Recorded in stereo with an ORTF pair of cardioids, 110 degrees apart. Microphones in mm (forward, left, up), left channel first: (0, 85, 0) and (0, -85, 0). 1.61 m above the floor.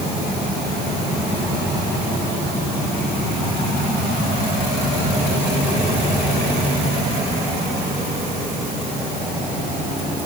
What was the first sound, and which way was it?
Only background noise.